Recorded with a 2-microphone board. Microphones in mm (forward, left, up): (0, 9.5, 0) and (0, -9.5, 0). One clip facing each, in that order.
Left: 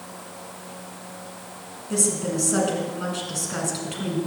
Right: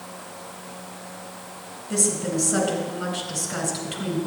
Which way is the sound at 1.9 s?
5° left (ahead or behind).